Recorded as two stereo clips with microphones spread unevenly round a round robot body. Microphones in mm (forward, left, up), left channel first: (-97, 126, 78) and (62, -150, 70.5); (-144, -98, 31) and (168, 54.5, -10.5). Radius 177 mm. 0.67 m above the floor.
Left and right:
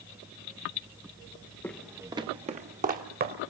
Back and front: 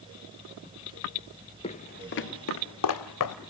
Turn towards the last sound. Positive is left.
turn(degrees=-120)